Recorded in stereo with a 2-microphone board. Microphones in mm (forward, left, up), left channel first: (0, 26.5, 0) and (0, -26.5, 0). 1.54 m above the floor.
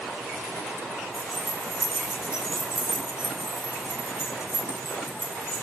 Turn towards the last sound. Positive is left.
turn(degrees=-15)  # may be behind; listen again after turning